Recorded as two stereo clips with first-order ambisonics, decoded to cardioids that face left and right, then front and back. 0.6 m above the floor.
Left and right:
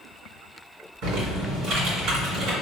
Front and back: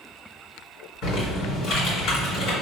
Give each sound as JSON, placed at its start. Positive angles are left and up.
{"t": 1.0, "sound": "typing on a keyboard", "azimuth_deg": -50, "distance_m": 1.9}